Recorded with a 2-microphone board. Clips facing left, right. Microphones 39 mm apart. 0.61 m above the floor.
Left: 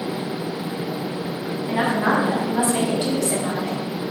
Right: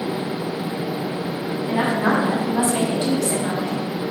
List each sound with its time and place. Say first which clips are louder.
1.7 s a woman speaking: even; 25° left (ahead or behind), 4.5 m; by 3.8 s 10° left (ahead or behind), 3 m